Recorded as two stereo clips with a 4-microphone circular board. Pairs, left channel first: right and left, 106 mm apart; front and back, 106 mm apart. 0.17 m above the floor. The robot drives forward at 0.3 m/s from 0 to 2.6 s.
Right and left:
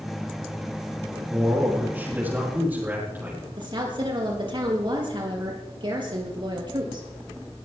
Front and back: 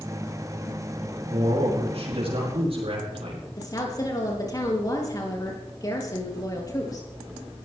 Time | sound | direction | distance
1.3 | a man speaking | 160° left | 4.5 m
3.6 | a woman speaking | 55° left | 4.5 m